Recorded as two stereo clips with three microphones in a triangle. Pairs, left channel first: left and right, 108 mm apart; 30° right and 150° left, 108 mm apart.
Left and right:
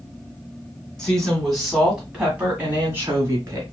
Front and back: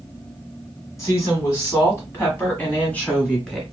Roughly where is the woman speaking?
Ahead.